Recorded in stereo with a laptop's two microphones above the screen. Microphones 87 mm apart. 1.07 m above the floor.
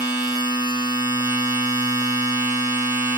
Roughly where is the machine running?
Right.